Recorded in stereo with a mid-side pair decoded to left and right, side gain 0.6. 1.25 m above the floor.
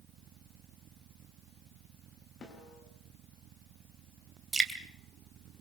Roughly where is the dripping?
Ahead.